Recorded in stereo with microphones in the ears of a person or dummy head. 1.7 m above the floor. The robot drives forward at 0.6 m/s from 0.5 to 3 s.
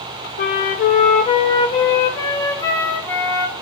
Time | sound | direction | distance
0.4 | a flute | 45° left (ahead or behind) | 0.7 m